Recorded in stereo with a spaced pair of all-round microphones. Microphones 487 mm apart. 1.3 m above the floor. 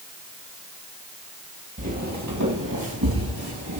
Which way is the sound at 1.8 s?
30° right (ahead or behind).